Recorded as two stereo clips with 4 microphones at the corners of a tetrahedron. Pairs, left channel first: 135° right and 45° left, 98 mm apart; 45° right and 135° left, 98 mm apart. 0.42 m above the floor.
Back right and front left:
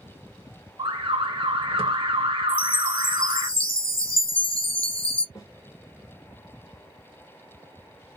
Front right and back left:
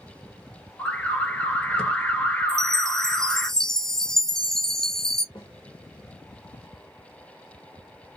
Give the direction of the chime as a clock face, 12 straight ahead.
4 o'clock.